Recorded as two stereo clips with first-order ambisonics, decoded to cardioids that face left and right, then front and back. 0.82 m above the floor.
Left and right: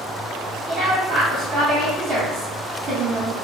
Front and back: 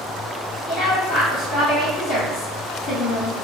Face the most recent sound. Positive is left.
turn(degrees=-40)